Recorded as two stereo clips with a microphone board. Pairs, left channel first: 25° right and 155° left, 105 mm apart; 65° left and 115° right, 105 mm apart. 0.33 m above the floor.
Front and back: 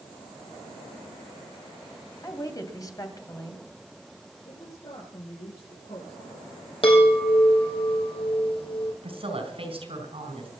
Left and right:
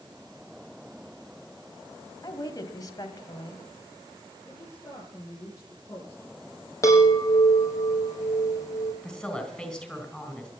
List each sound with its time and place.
2.2 s a woman speaking: 25° left, 2 m
4.5 s a woman speaking: straight ahead, 7.5 m
6.8 s a chime: 5° left, 3.5 m
9.0 s a woman speaking: 150° left, 3.5 m